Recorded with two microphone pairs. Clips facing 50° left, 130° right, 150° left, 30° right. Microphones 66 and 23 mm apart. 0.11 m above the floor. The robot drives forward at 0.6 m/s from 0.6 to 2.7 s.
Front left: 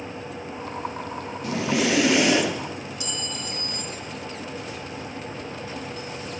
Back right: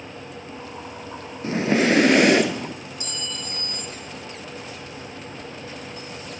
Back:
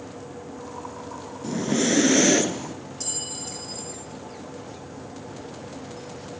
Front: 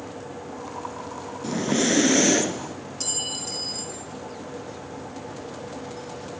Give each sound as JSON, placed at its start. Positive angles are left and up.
{"t": 1.4, "sound": "breathing", "azimuth_deg": -90, "distance_m": 1.0}
{"t": 3.0, "sound": "a clink", "azimuth_deg": -95, "distance_m": 2.0}